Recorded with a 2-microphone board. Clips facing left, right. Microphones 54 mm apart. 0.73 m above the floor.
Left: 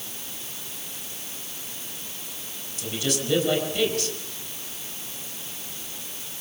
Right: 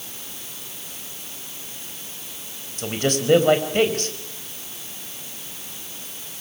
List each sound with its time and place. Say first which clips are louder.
2.8 s a man speaking: right 5 dB; 45° right (ahead or behind), 4.5 m